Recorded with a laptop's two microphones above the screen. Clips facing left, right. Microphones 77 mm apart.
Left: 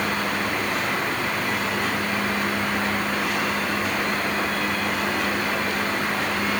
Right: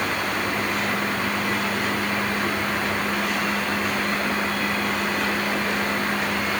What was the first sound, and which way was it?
Only background noise.